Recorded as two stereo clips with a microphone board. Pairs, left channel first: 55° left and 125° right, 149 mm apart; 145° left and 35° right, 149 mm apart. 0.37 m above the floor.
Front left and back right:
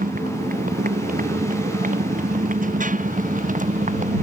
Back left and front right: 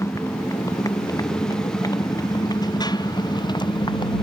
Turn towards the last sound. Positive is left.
turn(degrees=-155)